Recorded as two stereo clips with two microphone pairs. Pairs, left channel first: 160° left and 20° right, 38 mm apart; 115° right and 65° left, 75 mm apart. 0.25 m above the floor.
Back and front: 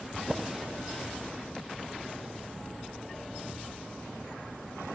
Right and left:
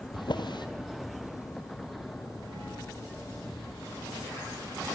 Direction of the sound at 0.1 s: 105° right.